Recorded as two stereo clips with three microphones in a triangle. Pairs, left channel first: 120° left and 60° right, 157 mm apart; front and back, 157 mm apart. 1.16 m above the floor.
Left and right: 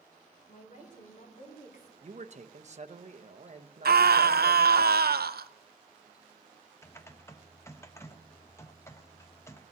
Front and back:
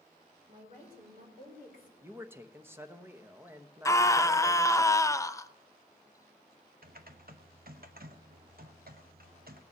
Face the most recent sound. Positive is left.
turn(degrees=-165)